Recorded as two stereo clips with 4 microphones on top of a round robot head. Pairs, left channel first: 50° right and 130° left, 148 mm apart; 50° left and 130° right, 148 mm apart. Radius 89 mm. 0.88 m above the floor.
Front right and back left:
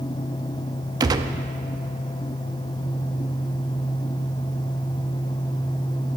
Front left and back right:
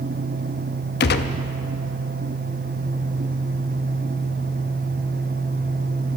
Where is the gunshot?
65° left, 0.6 m.